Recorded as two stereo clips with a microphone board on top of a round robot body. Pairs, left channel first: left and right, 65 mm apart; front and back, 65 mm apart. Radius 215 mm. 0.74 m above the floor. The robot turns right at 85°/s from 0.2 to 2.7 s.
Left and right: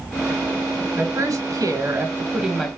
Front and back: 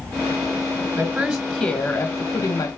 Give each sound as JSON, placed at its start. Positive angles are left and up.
{"t": 0.9, "sound": "a woman speaking", "azimuth_deg": -145, "distance_m": 1.3}